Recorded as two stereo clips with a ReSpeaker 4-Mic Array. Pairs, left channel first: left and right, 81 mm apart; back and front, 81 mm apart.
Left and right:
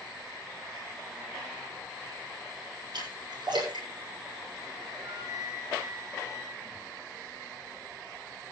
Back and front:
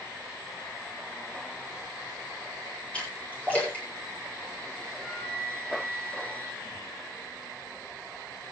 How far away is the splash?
About 8.5 m.